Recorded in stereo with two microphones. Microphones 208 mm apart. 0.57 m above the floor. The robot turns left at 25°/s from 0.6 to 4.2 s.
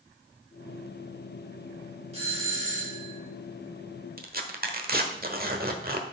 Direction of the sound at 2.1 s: 30° right (ahead or behind).